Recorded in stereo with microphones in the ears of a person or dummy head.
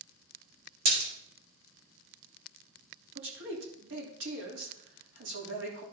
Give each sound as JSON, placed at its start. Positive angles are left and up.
{"t": 0.8, "sound": "a splash", "side_deg": -50, "distance_m": 4.0}
{"t": 3.1, "sound": "a man speaking", "side_deg": -65, "distance_m": 3.0}